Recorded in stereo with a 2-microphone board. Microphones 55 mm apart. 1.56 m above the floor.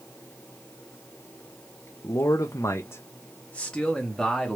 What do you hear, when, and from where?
2.0 s a man speaking: 80° left, 0.6 m; by 4.6 s centre (ahead or behind), 1.1 m